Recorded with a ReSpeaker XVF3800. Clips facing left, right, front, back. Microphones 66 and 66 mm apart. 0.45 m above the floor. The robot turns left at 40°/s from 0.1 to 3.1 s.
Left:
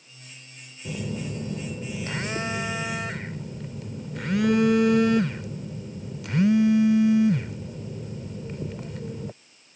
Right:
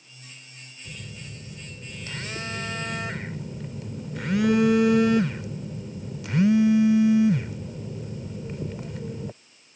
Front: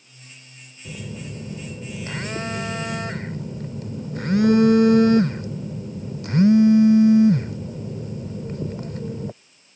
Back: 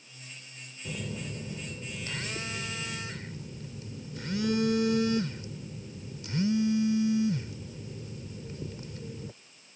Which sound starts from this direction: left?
A phone buzzing, at 0.8 s.